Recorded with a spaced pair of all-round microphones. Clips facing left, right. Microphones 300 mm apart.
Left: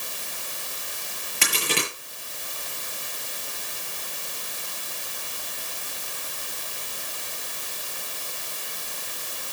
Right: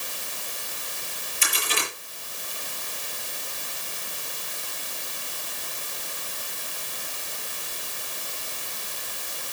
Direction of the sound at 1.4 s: 80° left.